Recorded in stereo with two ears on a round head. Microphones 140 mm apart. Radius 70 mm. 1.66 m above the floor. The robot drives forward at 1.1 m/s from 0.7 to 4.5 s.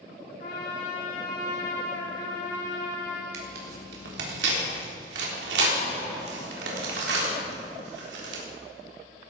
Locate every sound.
0.4 s a trumpet: 55° left (ahead or behind), 4.5 m; by 3.2 s 80° left, 4 m
3.3 s tearing paper: 65° right (ahead or behind), 4 m; by 8.4 s 80° right, 4 m